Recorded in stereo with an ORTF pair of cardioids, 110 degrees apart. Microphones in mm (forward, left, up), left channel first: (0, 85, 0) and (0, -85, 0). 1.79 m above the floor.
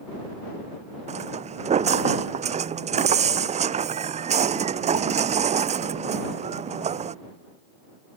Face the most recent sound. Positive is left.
turn(degrees=-45)